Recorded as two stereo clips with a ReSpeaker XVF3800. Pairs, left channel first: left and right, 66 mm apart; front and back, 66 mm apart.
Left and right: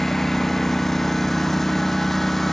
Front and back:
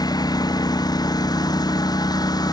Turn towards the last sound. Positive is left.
turn(degrees=5)